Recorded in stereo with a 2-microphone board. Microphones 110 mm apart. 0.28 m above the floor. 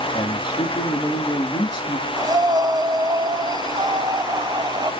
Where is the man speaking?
40° left (ahead or behind), 3.5 m.